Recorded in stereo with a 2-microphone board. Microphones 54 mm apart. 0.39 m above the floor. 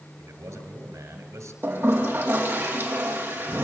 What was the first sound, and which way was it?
A man speaking, 80° right.